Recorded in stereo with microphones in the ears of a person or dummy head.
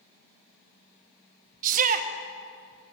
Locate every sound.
1.6 s a shout: 40° right (ahead or behind), 1.1 m